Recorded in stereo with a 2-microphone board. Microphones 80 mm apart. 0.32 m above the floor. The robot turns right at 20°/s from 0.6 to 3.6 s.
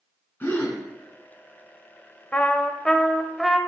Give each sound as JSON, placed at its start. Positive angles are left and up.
{"t": 0.4, "sound": "a gasp", "side_deg": 25, "distance_m": 2.0}
{"t": 2.3, "sound": "a trumpet", "side_deg": 20, "distance_m": 0.6}